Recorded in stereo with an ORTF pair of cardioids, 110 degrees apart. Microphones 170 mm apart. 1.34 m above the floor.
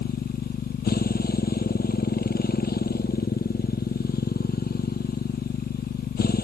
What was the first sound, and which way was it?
A motorcycle, 65° left.